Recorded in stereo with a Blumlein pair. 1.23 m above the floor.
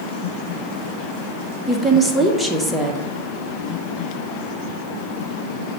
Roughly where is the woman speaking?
Ahead.